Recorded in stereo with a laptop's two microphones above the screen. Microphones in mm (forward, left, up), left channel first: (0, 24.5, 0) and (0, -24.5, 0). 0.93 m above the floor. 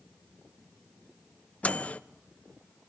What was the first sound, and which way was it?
A microwave, 30° left (ahead or behind).